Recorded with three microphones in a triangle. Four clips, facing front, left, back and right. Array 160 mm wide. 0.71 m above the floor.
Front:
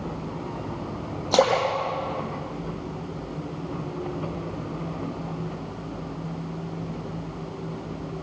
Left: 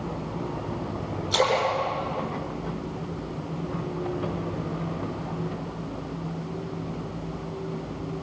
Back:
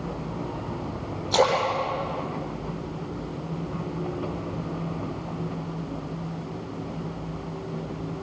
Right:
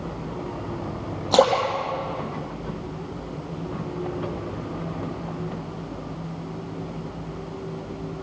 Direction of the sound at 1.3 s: 60° right.